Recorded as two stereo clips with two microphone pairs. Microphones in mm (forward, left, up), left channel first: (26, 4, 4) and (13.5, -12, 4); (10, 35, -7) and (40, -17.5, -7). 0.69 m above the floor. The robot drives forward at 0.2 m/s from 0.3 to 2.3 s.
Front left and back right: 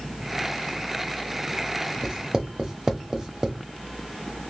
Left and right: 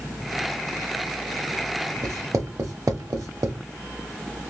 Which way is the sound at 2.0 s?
75° right.